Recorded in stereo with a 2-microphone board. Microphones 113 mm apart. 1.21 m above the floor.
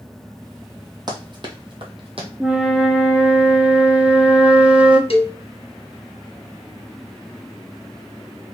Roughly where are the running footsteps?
Right.